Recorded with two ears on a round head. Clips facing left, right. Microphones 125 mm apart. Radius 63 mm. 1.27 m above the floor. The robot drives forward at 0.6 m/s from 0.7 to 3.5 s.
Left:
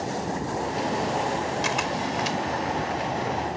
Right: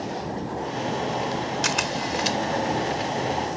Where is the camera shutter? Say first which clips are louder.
Even; 65° right (ahead or behind); by 2.4 s 60° right (ahead or behind).